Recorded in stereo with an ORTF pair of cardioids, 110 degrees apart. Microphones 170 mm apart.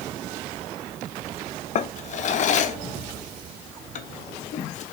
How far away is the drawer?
About 0.6 m.